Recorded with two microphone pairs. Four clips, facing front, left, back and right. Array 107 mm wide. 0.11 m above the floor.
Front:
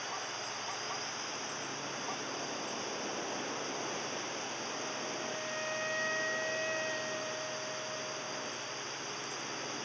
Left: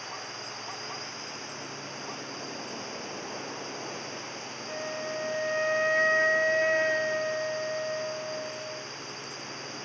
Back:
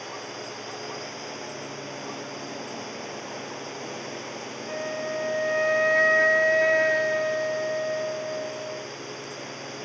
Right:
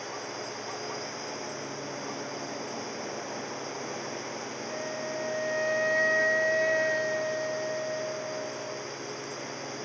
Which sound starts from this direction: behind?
A flute, at 4.7 s.